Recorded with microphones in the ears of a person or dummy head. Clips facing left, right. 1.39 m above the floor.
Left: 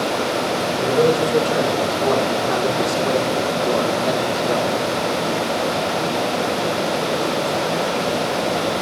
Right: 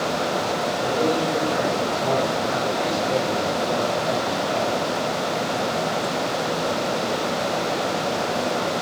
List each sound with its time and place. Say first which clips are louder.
0.8 s a man speaking: left 7 dB; 50° left (ahead or behind), 6.5 m; by 4.8 s 65° left (ahead or behind), 3.5 m